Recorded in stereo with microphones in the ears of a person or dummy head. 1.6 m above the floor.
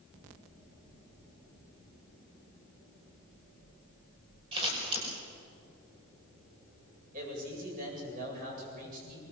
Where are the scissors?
30° right (ahead or behind), 6 m.